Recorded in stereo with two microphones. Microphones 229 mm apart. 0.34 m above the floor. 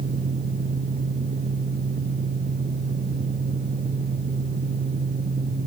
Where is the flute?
No flute in this recording.